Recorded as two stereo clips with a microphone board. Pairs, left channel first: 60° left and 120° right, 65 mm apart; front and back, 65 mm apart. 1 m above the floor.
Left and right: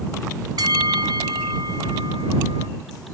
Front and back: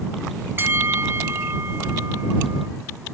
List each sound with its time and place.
0.6 s a bell: 125° right